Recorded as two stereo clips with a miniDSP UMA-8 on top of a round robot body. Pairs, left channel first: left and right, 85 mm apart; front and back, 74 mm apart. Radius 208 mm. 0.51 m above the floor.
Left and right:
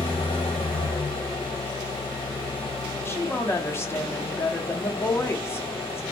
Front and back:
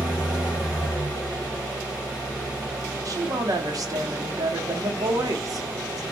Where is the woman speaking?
150° left, 1.2 m.